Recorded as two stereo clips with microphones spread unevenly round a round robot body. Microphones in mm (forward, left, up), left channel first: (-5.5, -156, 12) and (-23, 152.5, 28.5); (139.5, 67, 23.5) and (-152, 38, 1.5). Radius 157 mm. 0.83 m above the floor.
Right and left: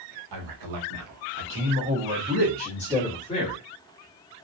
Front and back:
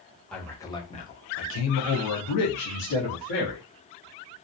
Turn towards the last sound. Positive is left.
turn(degrees=-15)